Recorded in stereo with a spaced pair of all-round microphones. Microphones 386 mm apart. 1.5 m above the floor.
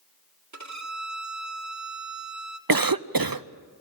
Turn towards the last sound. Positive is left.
turn(degrees=-60)  # may be behind; listen again after turning